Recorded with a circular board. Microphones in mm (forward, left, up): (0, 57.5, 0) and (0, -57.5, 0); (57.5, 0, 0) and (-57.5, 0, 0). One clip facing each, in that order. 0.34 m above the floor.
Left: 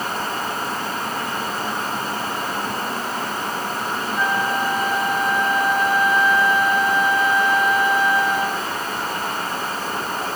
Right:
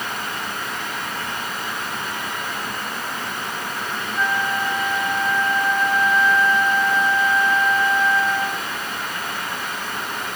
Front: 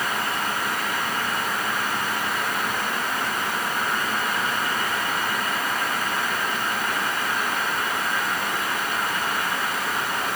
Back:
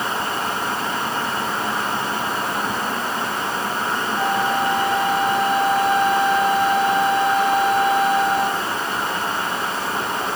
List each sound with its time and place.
4.2 s a flute: 170° left